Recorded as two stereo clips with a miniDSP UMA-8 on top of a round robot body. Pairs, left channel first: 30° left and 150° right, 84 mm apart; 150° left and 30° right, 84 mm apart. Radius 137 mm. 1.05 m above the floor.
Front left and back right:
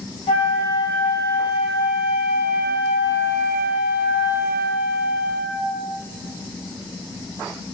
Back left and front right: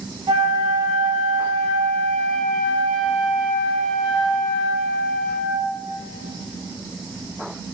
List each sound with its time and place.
0.3 s a flute: 10° left, 0.7 m